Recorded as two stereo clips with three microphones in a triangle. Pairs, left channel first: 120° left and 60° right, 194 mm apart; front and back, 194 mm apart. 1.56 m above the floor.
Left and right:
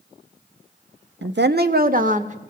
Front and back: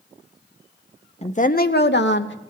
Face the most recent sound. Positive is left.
turn(degrees=-10)